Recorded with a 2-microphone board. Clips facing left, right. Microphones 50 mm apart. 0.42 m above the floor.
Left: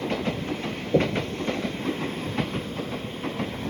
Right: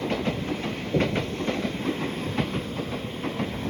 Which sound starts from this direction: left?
Knocking, at 0.9 s.